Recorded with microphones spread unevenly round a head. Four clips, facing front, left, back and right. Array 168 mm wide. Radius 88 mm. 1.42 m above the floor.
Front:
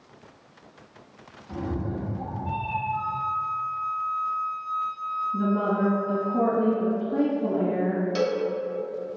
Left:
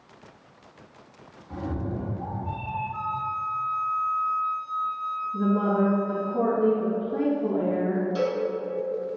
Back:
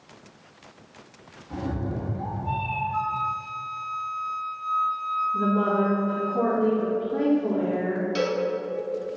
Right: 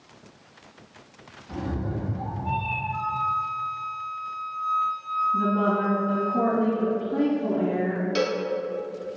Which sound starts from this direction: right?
A cowbell, at 8.2 s.